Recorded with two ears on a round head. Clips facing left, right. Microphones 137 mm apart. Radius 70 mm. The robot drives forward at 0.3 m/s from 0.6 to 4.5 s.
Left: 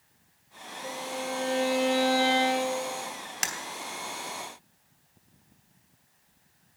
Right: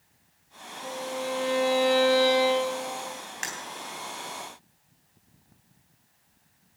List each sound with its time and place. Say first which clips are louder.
0.8 s a violin: right 2 dB; 80° right, 5 m; by 3.0 s 70° right (ahead or behind), 5 m
3.4 s breaking glass: left 2 dB; 45° left (ahead or behind), 3 m